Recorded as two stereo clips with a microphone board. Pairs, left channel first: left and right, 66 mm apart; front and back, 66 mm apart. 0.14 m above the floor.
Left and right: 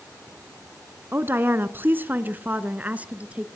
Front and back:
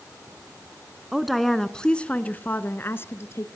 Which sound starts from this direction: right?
A woman speaking, at 1.1 s.